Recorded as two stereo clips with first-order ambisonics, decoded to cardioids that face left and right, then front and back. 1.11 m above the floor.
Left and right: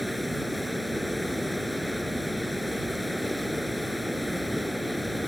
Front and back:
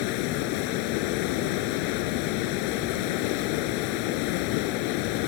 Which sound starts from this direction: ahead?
Running water, at 0.0 s.